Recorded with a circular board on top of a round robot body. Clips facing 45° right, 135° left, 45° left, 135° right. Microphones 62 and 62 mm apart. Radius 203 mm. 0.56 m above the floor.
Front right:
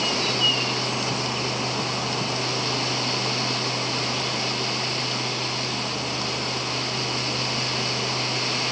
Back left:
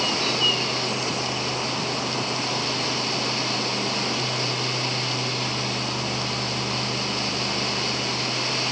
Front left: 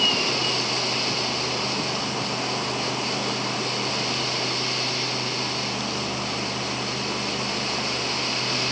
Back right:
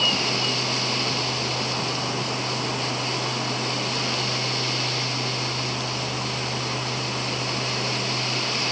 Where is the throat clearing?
I don't hear throat clearing.